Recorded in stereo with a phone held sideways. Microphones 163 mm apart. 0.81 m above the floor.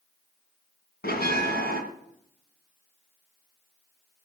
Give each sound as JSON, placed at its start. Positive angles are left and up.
{"t": 1.0, "sound": "a bell", "side_deg": 85, "distance_m": 3.0}